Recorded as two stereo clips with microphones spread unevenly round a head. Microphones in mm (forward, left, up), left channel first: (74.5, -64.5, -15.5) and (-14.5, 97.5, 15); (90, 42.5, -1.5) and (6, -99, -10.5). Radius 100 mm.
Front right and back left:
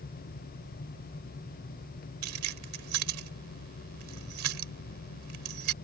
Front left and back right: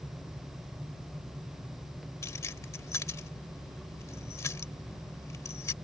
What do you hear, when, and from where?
2.2 s keys jangling: 135° left